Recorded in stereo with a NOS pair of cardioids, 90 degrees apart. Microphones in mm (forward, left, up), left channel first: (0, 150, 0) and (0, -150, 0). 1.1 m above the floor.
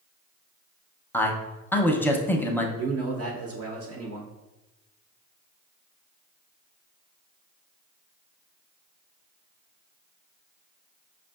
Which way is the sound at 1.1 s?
5° left.